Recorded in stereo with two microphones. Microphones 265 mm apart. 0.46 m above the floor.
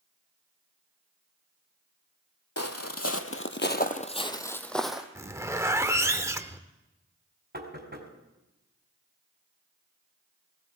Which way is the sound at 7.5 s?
40° right (ahead or behind).